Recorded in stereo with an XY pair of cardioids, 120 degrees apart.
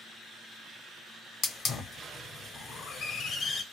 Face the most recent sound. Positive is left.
turn(degrees=45)